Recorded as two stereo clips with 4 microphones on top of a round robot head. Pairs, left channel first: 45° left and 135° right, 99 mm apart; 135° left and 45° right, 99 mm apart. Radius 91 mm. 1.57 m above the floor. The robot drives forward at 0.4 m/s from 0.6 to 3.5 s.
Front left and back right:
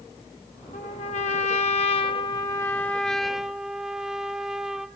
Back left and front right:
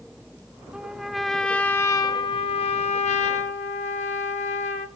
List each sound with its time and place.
0.7 s a trumpet: 40° left, 0.7 m; by 4.9 s 140° left, 0.7 m